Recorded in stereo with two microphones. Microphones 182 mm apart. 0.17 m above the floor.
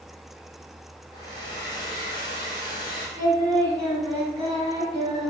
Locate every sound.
1.1 s a hair dryer: 25° left (ahead or behind), 1.9 m
3.2 s singing: 20° right (ahead or behind), 1.3 m